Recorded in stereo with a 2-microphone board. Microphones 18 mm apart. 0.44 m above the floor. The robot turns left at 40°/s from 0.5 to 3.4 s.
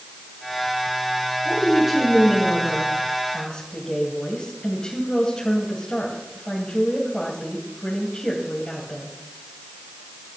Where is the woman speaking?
145° right, 2.5 m; by 9.2 s 135° left, 2.5 m.